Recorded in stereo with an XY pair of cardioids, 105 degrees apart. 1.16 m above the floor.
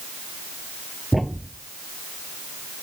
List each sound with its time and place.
1.1 s a thud: 5° right